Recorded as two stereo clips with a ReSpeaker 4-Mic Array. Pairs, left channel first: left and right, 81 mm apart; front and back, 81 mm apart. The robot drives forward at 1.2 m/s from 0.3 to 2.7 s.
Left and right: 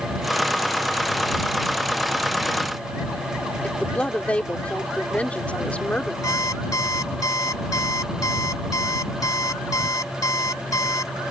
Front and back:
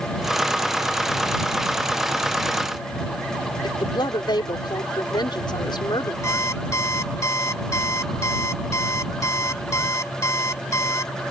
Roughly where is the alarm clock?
Ahead left.